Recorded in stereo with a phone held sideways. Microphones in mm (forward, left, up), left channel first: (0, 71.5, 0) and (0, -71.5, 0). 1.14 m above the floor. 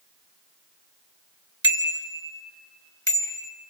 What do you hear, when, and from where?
1.6 s a bicycle bell: 35° left (ahead or behind), 2 m; by 3.5 s 20° left (ahead or behind), 4.5 m